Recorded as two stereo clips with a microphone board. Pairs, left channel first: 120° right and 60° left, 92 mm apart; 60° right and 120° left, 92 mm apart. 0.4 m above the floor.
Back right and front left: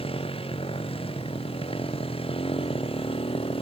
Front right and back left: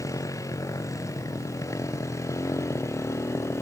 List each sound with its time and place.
0.0 s a motorcycle: 115° right; by 3.6 s 120° right